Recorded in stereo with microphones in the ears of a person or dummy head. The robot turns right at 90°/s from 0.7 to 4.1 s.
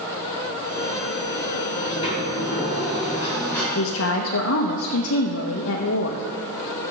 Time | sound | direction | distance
1.7 | a sliding door | 5° left | 5 m
3.7 | a woman speaking | 75° left | 0.9 m